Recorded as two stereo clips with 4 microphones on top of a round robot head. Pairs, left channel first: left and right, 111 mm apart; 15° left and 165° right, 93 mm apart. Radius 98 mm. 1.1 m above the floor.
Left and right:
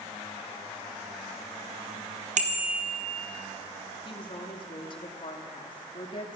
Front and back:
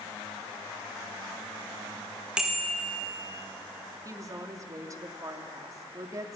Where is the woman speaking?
140° left, 3 m.